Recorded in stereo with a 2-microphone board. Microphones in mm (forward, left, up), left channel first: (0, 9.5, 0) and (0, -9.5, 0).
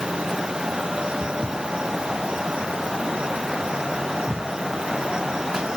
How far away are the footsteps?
About 2.5 m.